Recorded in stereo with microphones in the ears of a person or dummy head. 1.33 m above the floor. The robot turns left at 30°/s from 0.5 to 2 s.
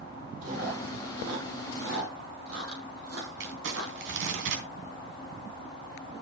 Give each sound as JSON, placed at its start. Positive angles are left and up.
{"t": 0.4, "sound": "chewing", "side_deg": -50, "distance_m": 5.0}
{"t": 3.4, "sound": "crumpling", "side_deg": -65, "distance_m": 2.5}